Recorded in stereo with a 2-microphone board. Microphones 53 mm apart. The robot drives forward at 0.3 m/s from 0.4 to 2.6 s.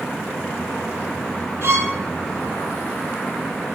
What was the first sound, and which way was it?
A violin, 55° right (ahead or behind).